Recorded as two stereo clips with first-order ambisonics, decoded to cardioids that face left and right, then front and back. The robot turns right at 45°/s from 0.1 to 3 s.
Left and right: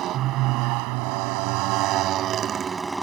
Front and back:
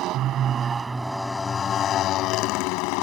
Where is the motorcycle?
140° right; by 3.0 s 5° right.